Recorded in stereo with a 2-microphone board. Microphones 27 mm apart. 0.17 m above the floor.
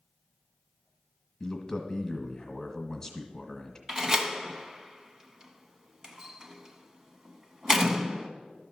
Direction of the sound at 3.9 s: 20° right (ahead or behind).